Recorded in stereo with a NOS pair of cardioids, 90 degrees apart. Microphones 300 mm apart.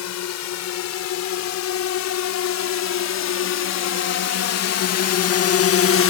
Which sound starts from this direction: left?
A drone, at 0.0 s.